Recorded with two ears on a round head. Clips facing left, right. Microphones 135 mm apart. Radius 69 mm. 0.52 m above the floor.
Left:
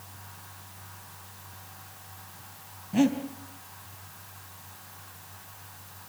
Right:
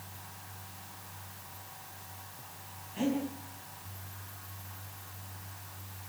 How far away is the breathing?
About 4 m.